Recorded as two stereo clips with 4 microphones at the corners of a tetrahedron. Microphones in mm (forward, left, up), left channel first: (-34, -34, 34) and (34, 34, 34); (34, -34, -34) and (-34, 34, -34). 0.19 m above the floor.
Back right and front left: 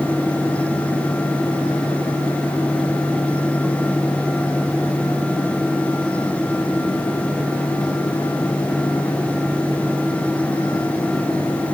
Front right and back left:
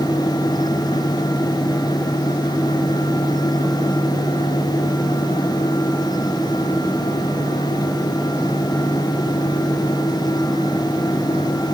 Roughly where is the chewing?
I don't hear chewing.